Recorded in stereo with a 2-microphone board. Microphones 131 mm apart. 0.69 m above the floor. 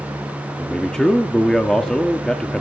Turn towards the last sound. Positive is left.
turn(degrees=5)  # may be behind; listen again after turning